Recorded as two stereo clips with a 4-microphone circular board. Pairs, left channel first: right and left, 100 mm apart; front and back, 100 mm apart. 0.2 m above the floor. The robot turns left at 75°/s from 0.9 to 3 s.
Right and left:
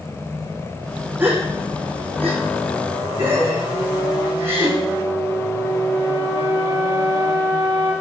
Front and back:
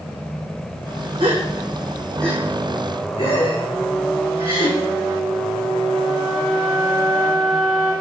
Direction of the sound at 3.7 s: 20° right.